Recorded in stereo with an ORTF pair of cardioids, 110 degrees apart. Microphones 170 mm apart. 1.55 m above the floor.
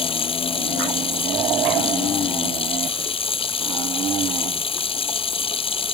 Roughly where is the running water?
Ahead left.